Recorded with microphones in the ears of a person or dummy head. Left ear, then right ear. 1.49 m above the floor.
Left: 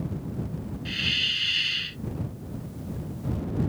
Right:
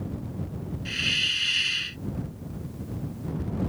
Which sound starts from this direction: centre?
A hiss, at 0.8 s.